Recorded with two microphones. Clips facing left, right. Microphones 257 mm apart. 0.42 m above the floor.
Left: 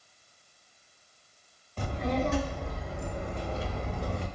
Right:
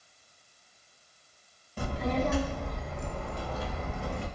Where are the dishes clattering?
I don't hear dishes clattering.